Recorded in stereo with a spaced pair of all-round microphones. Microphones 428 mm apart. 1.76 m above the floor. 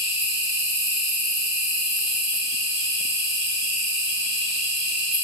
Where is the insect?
25° right (ahead or behind), 1.2 m.